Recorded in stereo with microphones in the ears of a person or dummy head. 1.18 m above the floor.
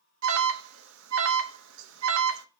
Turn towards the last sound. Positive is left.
turn(degrees=-75)  # may be behind; listen again after turning